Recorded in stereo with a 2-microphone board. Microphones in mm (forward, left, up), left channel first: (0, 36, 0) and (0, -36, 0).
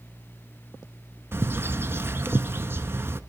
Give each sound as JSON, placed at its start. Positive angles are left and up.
{"t": 1.3, "sound": "a bird", "side_deg": -35, "distance_m": 0.7}